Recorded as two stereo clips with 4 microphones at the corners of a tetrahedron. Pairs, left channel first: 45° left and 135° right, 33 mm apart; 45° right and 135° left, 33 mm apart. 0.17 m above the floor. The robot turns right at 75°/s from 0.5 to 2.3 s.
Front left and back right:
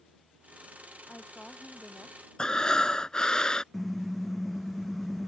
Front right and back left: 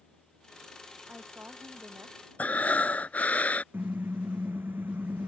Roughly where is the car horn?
Behind left.